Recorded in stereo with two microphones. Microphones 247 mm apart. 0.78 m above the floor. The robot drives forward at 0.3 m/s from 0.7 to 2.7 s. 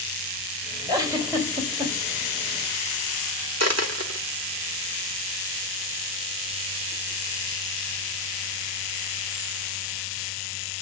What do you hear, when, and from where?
0.9 s a giggle: 15° right (ahead or behind), 3 m
3.6 s a dropped coin: 85° right, 0.9 m